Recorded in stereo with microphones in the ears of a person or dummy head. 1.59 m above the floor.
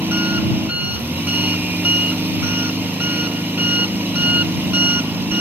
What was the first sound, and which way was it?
An engine running, 10° right (ahead or behind).